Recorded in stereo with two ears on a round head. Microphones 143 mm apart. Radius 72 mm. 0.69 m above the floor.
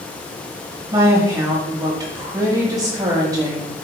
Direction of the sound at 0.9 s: 20° right (ahead or behind).